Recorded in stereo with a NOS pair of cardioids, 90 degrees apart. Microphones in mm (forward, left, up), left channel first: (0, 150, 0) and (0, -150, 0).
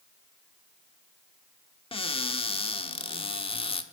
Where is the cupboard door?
20° left, 1.6 m.